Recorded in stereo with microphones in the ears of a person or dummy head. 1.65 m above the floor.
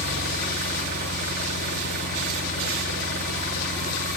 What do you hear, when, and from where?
0.0 s an engine running: 50° right (ahead or behind), 1.5 m